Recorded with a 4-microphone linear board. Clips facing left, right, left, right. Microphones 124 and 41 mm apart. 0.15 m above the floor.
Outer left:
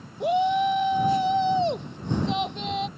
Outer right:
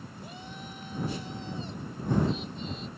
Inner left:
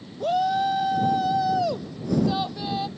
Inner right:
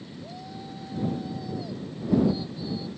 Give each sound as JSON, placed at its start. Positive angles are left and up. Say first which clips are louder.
{"t": 0.2, "sound": "a shout", "louder": "outer left 26 dB, inner left 21 dB", "side_deg": 75}